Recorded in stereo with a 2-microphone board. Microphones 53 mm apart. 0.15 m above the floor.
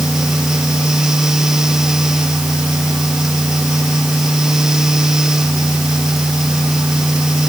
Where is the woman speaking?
I don't hear a woman speaking.